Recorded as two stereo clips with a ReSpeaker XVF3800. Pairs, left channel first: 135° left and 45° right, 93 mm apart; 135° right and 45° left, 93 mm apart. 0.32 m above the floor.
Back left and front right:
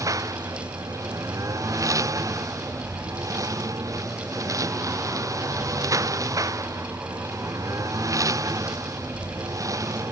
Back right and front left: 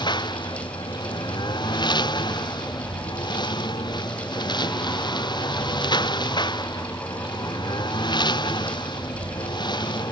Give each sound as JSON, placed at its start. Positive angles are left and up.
{"t": 0.0, "sound": "a lawn mower", "azimuth_deg": -100}